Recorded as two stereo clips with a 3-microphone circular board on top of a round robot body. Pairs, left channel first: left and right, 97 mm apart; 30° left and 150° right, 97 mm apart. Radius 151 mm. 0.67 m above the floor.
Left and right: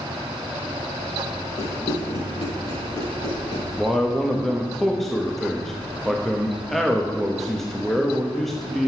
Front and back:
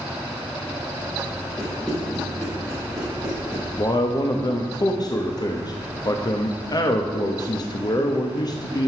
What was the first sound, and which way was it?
Running footsteps, 110° left.